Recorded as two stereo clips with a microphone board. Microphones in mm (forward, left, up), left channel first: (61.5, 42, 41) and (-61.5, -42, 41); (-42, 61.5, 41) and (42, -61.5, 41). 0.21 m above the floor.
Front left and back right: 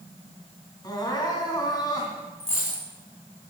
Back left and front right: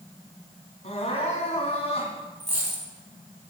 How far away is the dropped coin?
About 6.5 m.